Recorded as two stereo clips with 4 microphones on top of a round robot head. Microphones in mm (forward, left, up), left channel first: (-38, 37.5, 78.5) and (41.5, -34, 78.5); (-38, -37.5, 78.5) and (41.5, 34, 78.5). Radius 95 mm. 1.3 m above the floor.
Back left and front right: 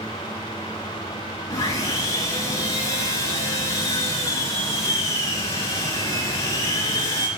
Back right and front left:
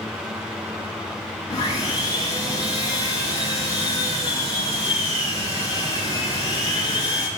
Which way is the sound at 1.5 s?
175° right.